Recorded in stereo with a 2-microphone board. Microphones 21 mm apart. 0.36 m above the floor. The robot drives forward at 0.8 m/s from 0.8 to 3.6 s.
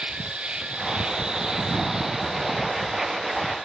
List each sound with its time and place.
0.0 s an insect: 55° right (ahead or behind), 0.8 m; by 3.6 s 15° right (ahead or behind), 3 m